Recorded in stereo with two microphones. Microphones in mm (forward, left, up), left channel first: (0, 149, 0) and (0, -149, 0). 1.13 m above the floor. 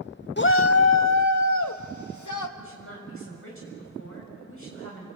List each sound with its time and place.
0.4 s a shout: 35° left (ahead or behind), 0.5 m; by 2.5 s 75° left (ahead or behind), 2 m
2.6 s a woman speaking: 45° left (ahead or behind), 7.5 m